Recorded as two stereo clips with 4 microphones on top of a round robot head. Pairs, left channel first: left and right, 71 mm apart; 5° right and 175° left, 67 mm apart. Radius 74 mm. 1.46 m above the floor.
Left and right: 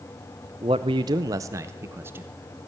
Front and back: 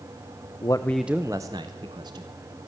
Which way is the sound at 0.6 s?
55° right.